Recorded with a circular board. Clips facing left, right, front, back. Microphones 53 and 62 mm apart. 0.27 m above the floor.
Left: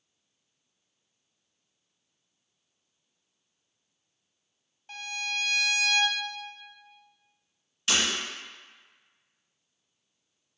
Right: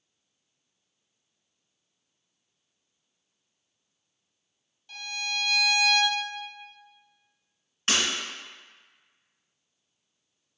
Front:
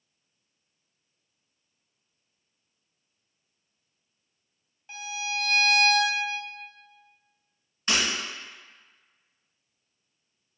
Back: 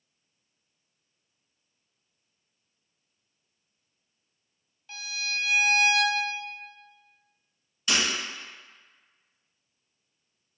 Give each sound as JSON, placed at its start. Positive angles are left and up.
{"t": 4.9, "sound": "a violin", "azimuth_deg": 55, "distance_m": 0.9}
{"t": 7.9, "sound": "breaking glass", "azimuth_deg": -45, "distance_m": 1.6}